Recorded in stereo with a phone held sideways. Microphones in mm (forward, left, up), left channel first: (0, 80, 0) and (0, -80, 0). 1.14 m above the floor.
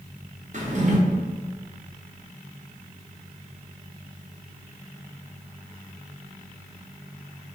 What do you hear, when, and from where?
0.5 s a drawer: 50° right (ahead or behind), 0.7 m